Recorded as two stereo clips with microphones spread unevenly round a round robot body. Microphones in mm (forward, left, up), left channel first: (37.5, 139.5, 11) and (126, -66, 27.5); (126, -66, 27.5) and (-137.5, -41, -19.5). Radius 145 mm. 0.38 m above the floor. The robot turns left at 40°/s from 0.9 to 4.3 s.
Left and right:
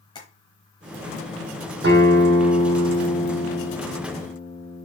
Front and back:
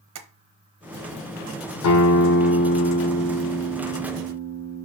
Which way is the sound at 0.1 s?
175° right.